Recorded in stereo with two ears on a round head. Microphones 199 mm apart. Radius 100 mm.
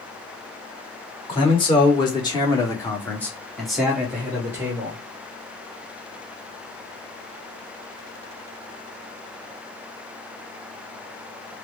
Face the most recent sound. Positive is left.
turn(degrees=-10)  # may be behind; listen again after turning